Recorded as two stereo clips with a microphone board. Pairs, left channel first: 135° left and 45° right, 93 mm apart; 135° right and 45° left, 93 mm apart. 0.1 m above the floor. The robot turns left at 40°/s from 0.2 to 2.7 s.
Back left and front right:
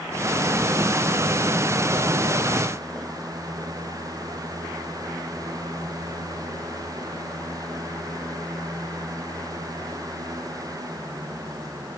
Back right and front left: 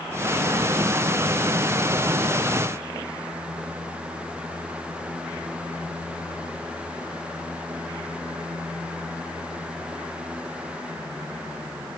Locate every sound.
Only background noise.